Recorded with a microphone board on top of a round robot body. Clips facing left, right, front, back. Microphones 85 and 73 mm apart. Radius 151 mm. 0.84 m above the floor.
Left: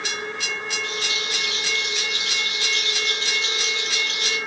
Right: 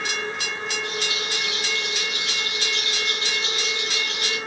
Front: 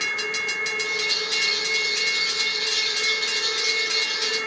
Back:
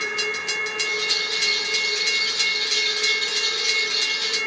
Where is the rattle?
85° left, 1.6 m.